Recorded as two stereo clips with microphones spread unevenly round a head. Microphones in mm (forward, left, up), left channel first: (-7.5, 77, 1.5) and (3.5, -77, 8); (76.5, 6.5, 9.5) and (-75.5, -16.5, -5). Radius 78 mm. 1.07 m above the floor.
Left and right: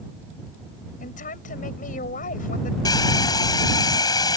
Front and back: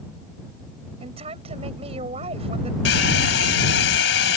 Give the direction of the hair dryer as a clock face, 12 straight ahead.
11 o'clock.